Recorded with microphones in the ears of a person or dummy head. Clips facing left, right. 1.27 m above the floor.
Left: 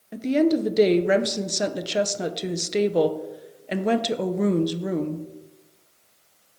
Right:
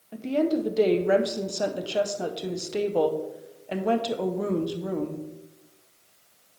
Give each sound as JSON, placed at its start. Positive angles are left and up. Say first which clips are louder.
{"t": 0.1, "sound": "a woman speaking", "louder": "left 4 dB", "side_deg": 20, "distance_m": 0.5}